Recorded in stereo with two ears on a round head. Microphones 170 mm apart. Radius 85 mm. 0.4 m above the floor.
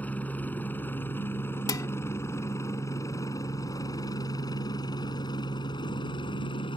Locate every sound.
0.0 s a helicopter: 10° left (ahead or behind); by 6.8 s 25° left (ahead or behind)
1.7 s dishes clattering: 20° left (ahead or behind)